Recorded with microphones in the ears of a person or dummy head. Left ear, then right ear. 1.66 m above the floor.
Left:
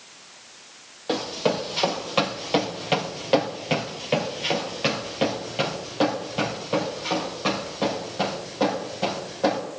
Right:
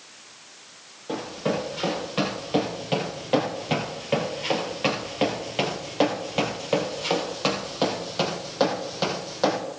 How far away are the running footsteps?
About 2.5 m.